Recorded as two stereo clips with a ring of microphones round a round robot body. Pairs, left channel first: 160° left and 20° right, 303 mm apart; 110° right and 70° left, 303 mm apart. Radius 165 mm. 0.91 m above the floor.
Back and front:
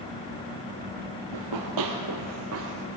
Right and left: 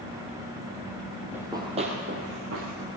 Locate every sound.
1.3 s running footsteps: 15° right, 2 m; by 2.9 s 30° left, 2 m